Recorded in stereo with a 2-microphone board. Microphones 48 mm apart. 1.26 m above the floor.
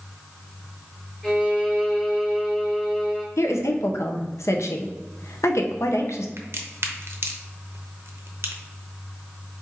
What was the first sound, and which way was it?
A violin, 20° left (ahead or behind).